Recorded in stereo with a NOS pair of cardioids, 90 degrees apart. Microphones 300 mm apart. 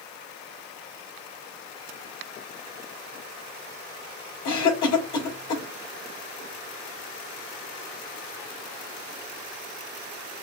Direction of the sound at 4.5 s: 65° left.